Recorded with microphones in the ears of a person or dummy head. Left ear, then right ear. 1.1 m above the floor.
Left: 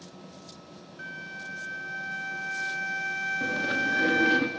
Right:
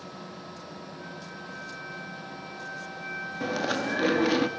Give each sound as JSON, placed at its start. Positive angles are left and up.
{"t": 1.0, "sound": "a flute", "side_deg": 75, "distance_m": 2.0}
{"t": 3.4, "sound": "chewing", "side_deg": -25, "distance_m": 0.6}